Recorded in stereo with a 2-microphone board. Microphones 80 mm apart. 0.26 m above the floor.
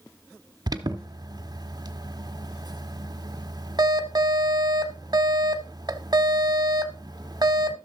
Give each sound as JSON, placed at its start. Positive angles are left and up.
{"t": 0.7, "sound": "an alarm", "side_deg": -55, "distance_m": 1.0}